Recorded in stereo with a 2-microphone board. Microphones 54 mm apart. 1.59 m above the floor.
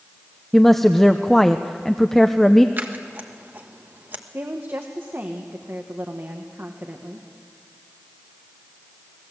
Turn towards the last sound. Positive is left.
turn(degrees=-45)  # may be behind; listen again after turning